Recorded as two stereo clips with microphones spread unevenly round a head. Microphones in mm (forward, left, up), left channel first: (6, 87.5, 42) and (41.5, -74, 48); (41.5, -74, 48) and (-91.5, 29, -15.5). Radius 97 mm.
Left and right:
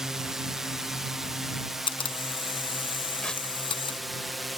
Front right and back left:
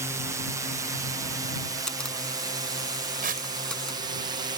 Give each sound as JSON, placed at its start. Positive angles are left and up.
{"t": 0.0, "sound": "a drone", "azimuth_deg": -165}
{"t": 1.9, "sound": "a camera shutter", "azimuth_deg": 40}
{"t": 3.2, "sound": "tearing paper", "azimuth_deg": -170}